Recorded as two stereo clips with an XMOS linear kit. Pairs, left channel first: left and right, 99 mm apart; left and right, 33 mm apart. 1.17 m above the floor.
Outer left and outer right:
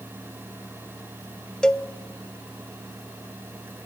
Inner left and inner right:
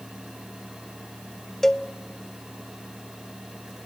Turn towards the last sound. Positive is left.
turn(degrees=5)  # may be behind; listen again after turning